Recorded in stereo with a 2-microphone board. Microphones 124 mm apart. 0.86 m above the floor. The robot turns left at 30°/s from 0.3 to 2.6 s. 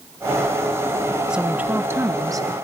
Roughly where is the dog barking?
No dog barking in this recording.